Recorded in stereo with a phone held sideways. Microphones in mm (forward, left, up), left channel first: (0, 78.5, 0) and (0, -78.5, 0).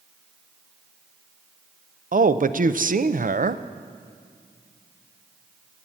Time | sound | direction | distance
2.1 | a man speaking | 60° right (ahead or behind) | 0.5 m